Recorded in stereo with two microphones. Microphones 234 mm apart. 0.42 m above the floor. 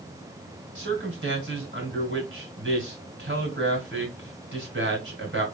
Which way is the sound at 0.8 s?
50° right (ahead or behind).